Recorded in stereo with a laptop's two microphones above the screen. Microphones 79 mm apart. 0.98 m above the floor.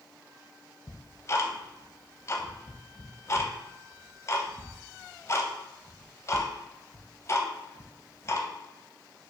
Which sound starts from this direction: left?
Ticking, at 0.9 s.